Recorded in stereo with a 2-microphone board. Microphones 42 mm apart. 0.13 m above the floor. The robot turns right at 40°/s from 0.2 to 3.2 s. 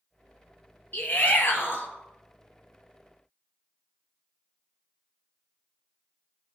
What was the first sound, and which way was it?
A shout, 60° left.